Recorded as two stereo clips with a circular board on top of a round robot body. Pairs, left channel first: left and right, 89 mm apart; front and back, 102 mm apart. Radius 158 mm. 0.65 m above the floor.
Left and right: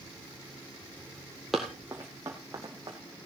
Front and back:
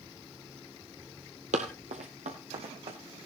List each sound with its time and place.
1.5 s running footsteps: straight behind, 0.8 m; by 3.0 s 145° right, 1.9 m